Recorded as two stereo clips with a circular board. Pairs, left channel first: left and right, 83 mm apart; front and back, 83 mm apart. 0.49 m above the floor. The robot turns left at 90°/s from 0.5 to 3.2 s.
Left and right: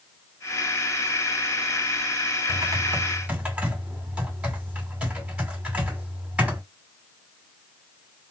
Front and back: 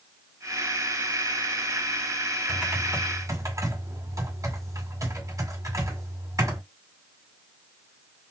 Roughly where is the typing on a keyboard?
Right.